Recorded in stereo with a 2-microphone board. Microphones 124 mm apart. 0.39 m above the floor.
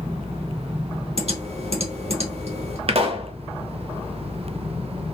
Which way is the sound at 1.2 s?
60° right (ahead or behind).